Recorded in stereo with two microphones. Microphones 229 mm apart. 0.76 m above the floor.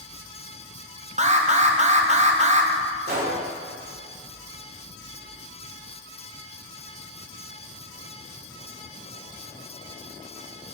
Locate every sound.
1.2 s an alarm: 30° right (ahead or behind), 0.7 m
3.1 s a gunshot: 65° right (ahead or behind), 2.5 m